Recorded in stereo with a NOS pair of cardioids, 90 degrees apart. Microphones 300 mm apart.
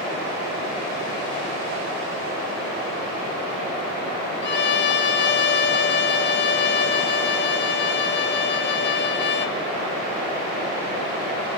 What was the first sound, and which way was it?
A violin, 40° left.